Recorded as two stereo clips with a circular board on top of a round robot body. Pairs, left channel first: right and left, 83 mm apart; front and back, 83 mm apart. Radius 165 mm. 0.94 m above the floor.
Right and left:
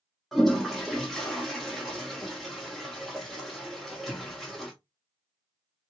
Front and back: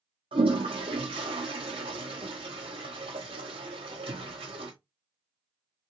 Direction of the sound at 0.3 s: Straight behind.